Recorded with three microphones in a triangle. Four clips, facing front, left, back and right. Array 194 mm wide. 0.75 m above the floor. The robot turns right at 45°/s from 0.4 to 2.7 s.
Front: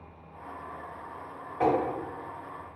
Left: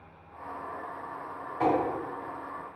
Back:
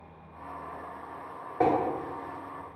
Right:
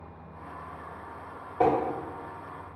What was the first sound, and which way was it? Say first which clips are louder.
Tapping: right 3 dB, back 1 dB; 130° right.